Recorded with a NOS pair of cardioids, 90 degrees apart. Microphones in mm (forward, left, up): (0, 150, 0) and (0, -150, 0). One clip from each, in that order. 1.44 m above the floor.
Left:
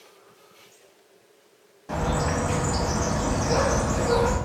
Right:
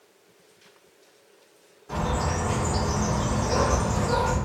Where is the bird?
60° left, 1.8 m.